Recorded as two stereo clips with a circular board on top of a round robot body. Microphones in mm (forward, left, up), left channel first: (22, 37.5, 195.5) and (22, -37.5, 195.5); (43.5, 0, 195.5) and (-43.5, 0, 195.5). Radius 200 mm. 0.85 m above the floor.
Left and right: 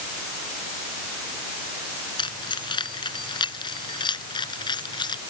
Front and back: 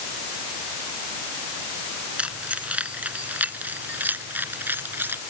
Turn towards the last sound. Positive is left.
turn(degrees=110)